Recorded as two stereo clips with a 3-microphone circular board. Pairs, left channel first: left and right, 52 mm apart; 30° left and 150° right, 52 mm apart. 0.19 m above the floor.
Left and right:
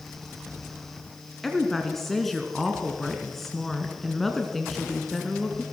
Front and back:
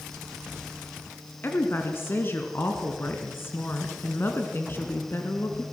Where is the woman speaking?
5° left, 2.5 m.